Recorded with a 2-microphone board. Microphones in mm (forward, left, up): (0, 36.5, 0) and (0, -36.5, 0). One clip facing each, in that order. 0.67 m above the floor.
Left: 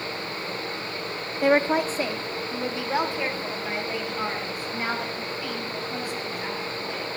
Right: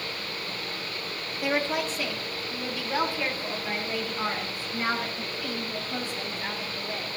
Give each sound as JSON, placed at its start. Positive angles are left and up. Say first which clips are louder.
{"t": 1.4, "sound": "a woman speaking", "louder": "left 7 dB", "side_deg": 45, "distance_m": 0.6}